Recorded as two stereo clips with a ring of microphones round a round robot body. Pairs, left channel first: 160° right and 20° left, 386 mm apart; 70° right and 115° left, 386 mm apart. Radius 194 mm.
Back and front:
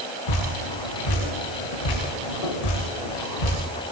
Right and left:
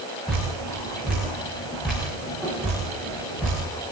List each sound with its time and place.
0.3 s dripping: 155° right, 10 m